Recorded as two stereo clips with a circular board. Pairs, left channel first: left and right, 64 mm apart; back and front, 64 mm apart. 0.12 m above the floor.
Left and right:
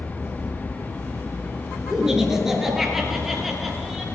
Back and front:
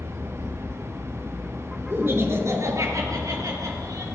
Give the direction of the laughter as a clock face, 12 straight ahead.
1 o'clock.